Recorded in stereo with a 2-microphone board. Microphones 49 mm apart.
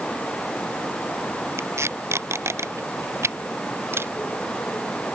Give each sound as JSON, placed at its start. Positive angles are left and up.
{"t": 1.6, "sound": "tape being pulled", "side_deg": -70}
{"t": 3.9, "sound": "a camera shutter", "side_deg": -60}